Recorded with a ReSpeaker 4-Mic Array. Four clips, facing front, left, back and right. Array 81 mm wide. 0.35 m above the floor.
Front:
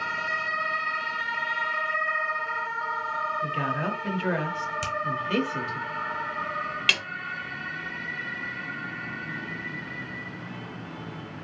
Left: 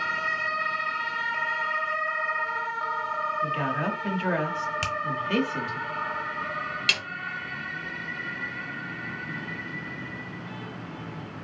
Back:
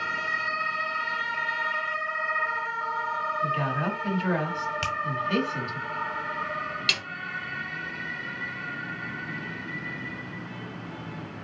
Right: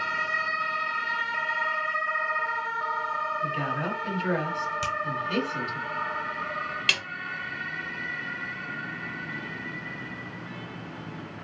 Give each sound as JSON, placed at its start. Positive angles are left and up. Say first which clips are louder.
{"t": 3.4, "sound": "a woman speaking", "louder": "left 2 dB, back 1 dB", "azimuth_deg": 55, "distance_m": 0.9}
{"t": 4.8, "sound": "a finger snap", "louder": "right 1 dB, back 1 dB", "azimuth_deg": 120, "distance_m": 0.9}
{"t": 6.9, "sound": "a snare drum", "louder": "right 1 dB, front 4 dB", "azimuth_deg": -15, "distance_m": 0.7}